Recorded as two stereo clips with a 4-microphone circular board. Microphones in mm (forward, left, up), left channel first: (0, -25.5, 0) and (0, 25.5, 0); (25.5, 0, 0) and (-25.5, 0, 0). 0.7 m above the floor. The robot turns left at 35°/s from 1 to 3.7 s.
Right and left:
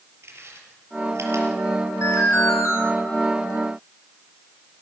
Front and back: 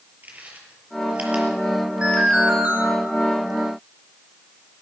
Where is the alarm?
110° right, 6 m; by 2.8 s 135° right, 6 m.